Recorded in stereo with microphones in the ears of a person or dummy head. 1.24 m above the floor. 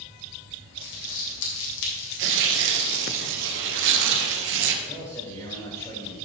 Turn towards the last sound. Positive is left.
turn(degrees=15)  # may be behind; listen again after turning